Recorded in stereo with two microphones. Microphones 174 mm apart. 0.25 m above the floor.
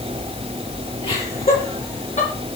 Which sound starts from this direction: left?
Laughter, at 1.0 s.